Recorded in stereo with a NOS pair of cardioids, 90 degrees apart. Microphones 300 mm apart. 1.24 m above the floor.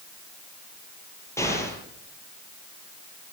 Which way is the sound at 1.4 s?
10° left.